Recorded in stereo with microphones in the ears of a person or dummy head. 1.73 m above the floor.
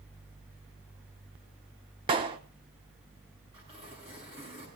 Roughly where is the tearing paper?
Right.